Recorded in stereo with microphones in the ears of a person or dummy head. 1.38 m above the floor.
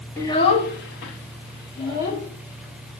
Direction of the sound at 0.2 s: 15° left (ahead or behind).